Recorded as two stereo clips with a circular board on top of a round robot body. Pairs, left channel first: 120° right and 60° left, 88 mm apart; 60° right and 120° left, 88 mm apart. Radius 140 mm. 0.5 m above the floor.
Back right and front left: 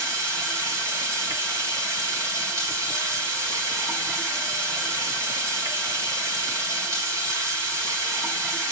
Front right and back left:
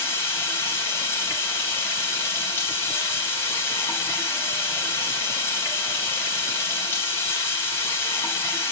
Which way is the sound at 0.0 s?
5° left.